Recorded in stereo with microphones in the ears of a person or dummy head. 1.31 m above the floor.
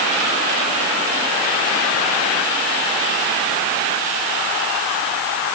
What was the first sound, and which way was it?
Only background noise.